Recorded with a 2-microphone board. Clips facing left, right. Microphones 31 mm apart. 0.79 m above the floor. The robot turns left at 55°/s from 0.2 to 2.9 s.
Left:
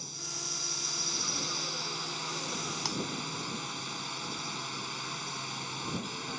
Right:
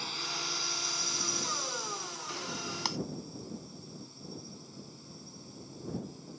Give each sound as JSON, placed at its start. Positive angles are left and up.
{"t": 0.0, "sound": "a drone", "azimuth_deg": -135}
{"t": 2.9, "sound": "breaking glass", "side_deg": -20}